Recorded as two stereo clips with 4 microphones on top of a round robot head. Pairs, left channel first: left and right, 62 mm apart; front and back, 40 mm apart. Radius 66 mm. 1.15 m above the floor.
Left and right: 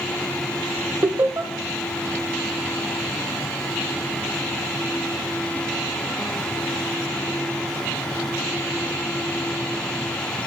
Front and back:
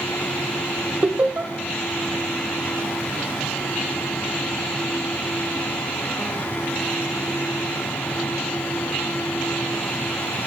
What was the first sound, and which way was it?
Laughter, 135° right.